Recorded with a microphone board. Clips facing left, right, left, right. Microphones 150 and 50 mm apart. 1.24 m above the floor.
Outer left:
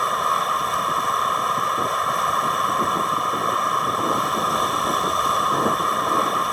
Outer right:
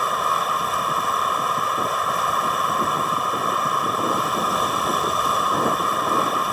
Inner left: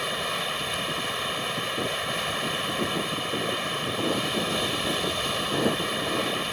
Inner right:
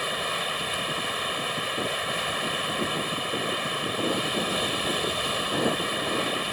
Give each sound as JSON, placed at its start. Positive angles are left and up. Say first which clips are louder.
{"t": 0.0, "sound": "running water", "louder": "even, even", "side_deg": 0}